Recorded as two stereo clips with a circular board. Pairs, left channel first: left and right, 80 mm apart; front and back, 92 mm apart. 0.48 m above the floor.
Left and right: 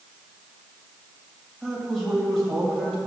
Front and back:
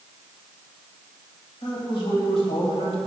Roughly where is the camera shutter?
I don't hear a camera shutter.